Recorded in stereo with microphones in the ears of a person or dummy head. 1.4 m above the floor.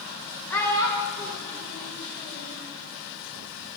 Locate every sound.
0.5 s a child speaking: 5° left (ahead or behind), 1.8 m; by 2.6 s 40° left (ahead or behind), 3 m